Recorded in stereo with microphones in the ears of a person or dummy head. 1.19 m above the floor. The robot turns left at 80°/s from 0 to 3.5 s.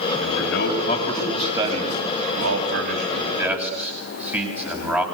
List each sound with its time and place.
0.2 s a man speaking: 85° left, 8.5 m; by 5.0 s 5° right (ahead or behind), 8.5 m